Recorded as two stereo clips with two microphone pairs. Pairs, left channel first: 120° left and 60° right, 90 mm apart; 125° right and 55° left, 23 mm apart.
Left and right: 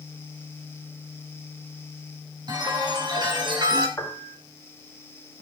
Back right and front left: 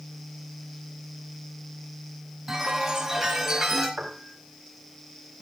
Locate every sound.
2.5 s a chime: 20° right, 5 m
4.0 s a piano: 55° left, 2 m